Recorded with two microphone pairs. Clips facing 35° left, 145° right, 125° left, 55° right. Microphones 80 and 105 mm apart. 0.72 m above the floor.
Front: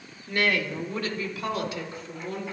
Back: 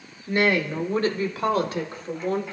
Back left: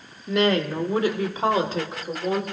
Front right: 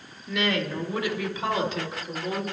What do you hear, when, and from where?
0.3 s a woman speaking: 155° left, 1.3 m; by 2.4 s 175° left, 2.5 m